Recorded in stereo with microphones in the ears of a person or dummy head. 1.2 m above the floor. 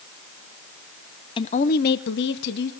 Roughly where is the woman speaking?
Left.